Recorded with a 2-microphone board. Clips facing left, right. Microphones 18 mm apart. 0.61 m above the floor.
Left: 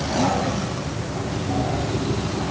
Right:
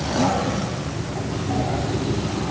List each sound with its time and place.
Only background noise.